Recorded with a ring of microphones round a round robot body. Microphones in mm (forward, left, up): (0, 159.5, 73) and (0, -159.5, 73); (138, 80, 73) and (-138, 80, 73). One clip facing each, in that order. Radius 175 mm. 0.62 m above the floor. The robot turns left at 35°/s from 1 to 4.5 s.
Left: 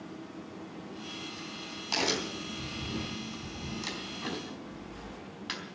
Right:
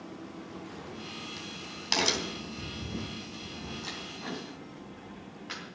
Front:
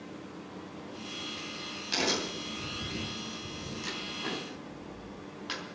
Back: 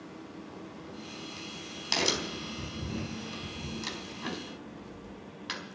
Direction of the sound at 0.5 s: 115° right.